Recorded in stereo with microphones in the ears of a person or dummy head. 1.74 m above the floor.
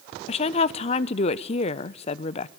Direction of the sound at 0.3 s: 40° left (ahead or behind).